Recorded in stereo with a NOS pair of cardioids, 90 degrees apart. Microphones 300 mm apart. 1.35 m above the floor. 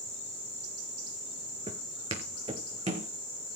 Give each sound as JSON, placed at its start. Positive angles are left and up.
{"t": 1.7, "sound": "footsteps", "azimuth_deg": -20, "distance_m": 4.5}